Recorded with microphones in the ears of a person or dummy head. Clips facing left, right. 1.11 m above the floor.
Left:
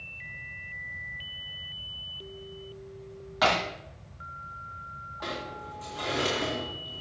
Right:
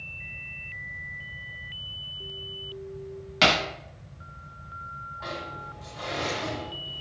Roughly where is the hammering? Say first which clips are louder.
Right 1 dB; right.